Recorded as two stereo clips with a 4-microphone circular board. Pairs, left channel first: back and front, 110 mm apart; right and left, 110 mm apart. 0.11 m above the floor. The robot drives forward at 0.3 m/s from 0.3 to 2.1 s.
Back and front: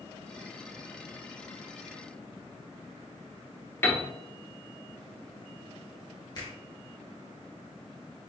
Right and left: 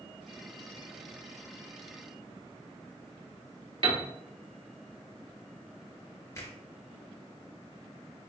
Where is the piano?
115° left, 1.0 m.